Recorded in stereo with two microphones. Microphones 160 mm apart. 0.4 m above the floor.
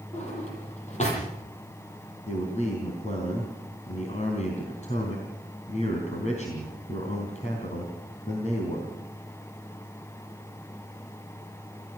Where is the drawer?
45° left (ahead or behind), 9 m.